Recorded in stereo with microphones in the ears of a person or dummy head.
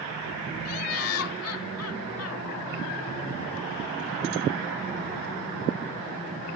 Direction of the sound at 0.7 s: 85° left.